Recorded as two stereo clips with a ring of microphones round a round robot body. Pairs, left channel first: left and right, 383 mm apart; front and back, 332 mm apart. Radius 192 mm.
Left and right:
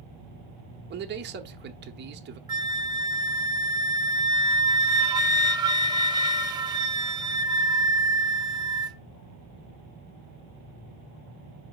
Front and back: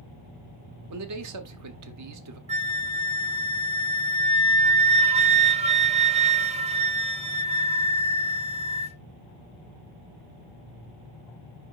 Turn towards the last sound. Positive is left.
turn(degrees=-150)